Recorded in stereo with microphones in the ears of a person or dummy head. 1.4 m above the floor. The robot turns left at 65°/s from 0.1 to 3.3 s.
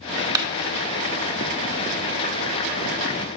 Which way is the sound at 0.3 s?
20° right (ahead or behind).